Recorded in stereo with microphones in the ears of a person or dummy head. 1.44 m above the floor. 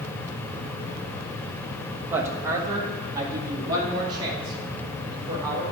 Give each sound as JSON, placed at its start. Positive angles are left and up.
{"t": 2.1, "sound": "a woman speaking", "side_deg": -15, "distance_m": 1.3}